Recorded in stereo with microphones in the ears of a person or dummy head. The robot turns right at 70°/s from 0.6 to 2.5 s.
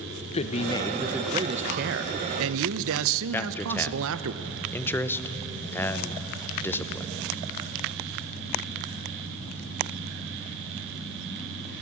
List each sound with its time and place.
0.3 s a man speaking: 150° left, 0.9 m; by 4.3 s 80° right, 0.9 m
3.3 s a man speaking: 10° left (ahead or behind), 1.0 m